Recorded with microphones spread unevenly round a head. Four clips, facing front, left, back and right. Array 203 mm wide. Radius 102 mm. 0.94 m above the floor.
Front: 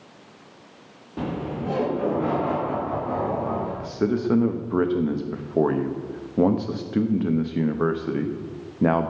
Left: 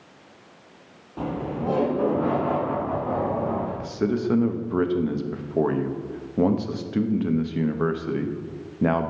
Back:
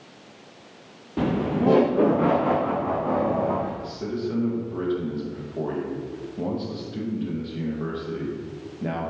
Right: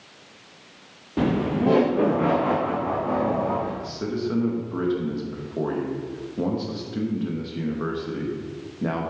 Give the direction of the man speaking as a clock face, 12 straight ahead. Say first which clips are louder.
Left 3 dB, front 5 dB; 11 o'clock.